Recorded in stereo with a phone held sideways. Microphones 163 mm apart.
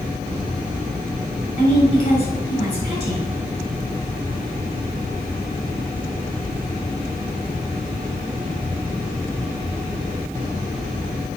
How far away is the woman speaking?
About 4.5 m.